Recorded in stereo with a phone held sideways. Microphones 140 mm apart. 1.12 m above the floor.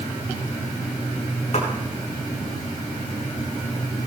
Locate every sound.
1.5 s a clap: 50° left (ahead or behind), 9 m